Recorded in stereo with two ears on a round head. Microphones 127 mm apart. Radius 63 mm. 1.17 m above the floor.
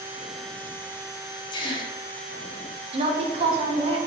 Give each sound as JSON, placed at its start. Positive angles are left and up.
{"t": 1.5, "sound": "a gasp", "side_deg": 30, "distance_m": 0.7}
{"t": 2.9, "sound": "a woman speaking", "side_deg": -35, "distance_m": 0.8}